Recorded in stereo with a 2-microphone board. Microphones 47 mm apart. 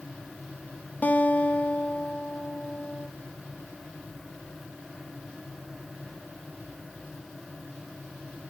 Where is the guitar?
35° left (ahead or behind), 0.6 m.